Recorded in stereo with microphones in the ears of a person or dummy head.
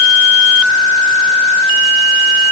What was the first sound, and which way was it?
Only background noise.